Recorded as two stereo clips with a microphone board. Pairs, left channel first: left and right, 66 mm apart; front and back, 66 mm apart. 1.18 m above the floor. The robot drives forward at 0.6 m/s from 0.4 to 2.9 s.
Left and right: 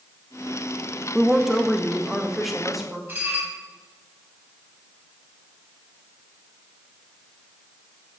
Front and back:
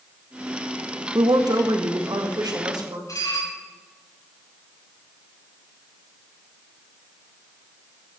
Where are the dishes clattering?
30° right, 5 m.